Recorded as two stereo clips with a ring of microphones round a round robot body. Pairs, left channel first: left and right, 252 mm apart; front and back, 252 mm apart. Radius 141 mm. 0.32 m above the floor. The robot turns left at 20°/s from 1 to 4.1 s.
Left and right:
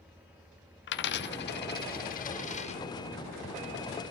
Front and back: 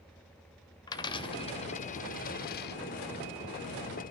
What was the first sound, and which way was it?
A dropped coin, 70° left.